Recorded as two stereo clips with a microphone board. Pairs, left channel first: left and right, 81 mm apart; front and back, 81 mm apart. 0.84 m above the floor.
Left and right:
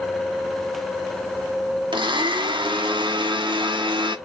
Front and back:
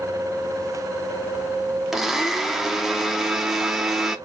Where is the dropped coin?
No dropped coin in this recording.